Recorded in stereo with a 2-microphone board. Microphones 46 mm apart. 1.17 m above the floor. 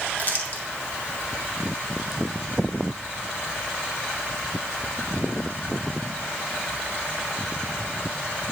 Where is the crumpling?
35° left (ahead or behind), 1.2 m.